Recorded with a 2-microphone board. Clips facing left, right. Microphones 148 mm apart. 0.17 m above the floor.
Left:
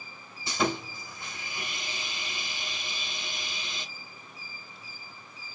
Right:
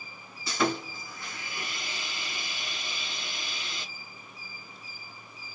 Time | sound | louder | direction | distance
0.5 | sawing | right 1 dB | 20° left (ahead or behind) | 1.6 m